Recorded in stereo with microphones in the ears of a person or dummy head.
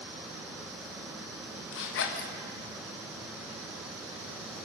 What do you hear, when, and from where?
1.7 s a zipper: 70° left (ahead or behind), 1.6 m